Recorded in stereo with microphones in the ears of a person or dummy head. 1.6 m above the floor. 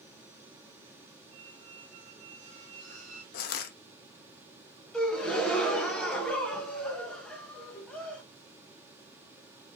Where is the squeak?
35° right (ahead or behind), 1.3 m.